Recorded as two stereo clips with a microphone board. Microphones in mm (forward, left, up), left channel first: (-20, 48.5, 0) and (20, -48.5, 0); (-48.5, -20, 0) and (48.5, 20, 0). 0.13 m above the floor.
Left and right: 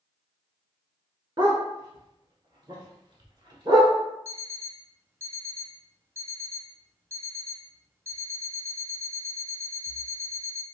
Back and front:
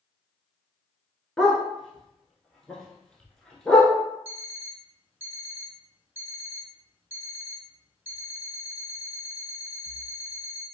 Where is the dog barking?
80° right, 0.8 m.